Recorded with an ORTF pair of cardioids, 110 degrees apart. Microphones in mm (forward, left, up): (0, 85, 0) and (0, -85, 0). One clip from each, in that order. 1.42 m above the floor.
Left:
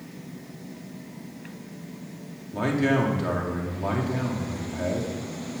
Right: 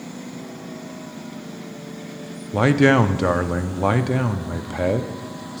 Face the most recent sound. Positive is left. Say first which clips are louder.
# right 8 dB
turn(degrees=-50)